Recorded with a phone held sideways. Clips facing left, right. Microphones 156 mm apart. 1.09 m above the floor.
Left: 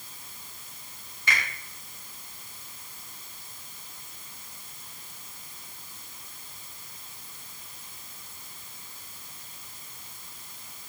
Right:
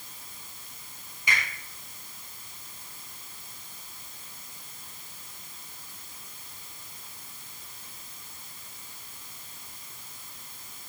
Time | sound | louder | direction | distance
1.3 | a finger snap | left 1 dB | 15° right (ahead or behind) | 4.5 m